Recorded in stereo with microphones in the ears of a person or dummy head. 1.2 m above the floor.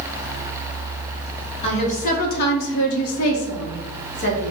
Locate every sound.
1.6 s a woman speaking: 30° left (ahead or behind), 1.0 m; by 4.5 s 45° left (ahead or behind), 1.1 m